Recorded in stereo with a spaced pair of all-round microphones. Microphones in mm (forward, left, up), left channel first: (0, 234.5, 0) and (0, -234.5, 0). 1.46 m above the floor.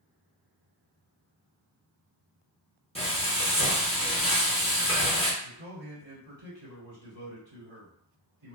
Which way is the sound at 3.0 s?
15° left (ahead or behind).